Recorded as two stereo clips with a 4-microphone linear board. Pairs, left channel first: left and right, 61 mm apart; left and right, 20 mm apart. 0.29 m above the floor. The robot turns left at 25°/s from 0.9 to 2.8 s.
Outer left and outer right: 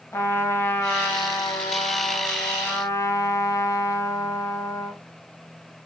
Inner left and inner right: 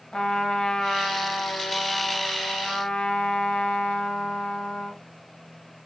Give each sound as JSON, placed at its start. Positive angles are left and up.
{"t": 0.1, "sound": "a trumpet", "azimuth_deg": 125, "distance_m": 0.9}